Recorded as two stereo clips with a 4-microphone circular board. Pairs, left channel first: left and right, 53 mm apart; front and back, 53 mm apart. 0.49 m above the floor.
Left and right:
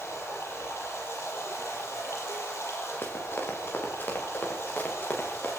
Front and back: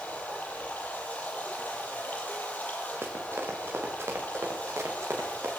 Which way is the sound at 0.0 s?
60° left.